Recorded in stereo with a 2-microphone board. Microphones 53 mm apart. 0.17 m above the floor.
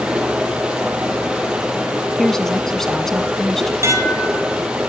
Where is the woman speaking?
5° left (ahead or behind), 1.4 m.